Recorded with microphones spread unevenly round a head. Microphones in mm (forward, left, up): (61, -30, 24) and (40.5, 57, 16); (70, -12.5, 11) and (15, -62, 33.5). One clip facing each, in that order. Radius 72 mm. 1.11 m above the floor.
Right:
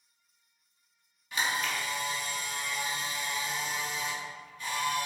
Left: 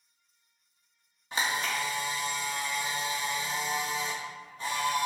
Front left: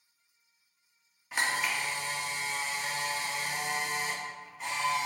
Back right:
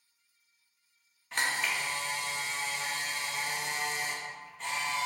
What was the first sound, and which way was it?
A camera shutter, 155° left.